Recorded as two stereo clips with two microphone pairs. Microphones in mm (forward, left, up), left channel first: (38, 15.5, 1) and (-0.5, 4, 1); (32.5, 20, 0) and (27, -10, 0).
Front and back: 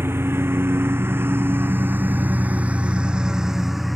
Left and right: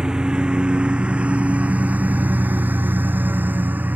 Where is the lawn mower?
165° right; by 4.0 s 75° right.